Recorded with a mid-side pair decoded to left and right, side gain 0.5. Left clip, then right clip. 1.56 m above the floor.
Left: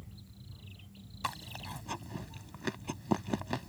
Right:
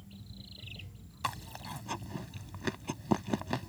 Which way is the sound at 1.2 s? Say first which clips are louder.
Right 1 dB; straight ahead.